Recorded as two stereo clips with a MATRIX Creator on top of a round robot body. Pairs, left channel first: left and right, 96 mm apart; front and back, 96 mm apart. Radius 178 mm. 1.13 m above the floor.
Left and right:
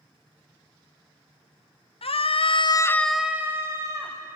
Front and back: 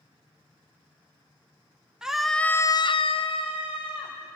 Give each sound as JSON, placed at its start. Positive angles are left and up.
{"t": 2.0, "sound": "a scream", "azimuth_deg": 95, "distance_m": 1.5}